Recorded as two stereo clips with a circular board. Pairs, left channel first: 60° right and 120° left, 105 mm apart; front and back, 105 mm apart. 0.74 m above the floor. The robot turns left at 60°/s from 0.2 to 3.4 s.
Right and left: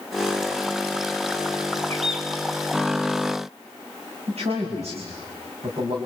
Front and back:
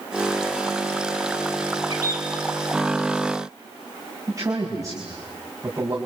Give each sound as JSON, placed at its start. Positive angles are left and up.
{"t": 1.9, "sound": "a bird", "azimuth_deg": 130, "distance_m": 5.5}
{"t": 4.3, "sound": "a man speaking", "azimuth_deg": 120, "distance_m": 5.5}